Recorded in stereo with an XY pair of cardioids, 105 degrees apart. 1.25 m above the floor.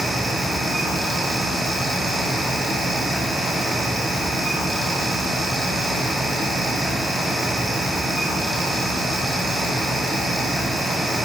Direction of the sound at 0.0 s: 10° right.